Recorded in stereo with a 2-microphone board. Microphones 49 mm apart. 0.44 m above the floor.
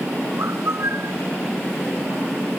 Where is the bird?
60° right (ahead or behind).